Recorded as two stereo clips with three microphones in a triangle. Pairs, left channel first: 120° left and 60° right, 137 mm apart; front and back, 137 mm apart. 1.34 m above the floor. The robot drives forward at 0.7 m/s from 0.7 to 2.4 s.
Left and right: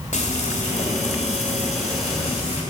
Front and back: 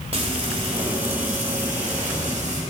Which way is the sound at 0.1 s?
140° left.